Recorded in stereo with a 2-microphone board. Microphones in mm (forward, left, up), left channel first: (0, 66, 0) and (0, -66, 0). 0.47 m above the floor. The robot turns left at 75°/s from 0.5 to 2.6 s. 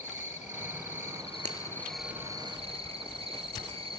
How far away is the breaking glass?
About 1.9 m.